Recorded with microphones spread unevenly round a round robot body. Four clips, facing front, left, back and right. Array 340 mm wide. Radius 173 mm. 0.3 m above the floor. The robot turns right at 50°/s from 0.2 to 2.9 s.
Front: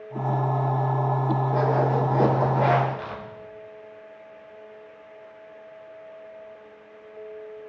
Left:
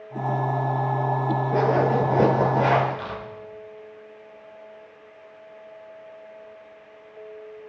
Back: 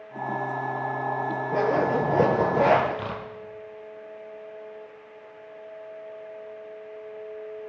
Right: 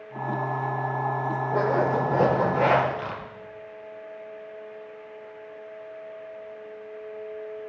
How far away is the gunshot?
I don't hear a gunshot.